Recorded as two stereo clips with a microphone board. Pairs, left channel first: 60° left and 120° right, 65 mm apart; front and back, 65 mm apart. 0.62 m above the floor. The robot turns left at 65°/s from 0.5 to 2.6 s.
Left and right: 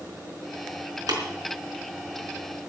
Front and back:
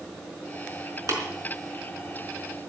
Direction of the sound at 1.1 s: 140° right.